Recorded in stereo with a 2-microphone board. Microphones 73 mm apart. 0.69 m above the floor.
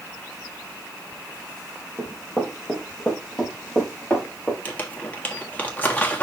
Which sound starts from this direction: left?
Crumpling, at 4.7 s.